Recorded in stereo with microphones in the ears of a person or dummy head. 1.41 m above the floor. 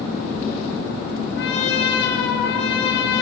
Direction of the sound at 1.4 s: 70° left (ahead or behind).